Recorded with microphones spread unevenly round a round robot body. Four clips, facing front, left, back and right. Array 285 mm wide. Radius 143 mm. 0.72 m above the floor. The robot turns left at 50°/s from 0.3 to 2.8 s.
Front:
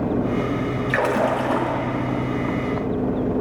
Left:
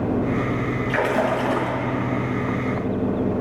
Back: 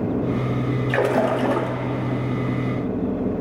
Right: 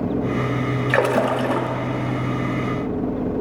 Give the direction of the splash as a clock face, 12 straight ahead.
5 o'clock.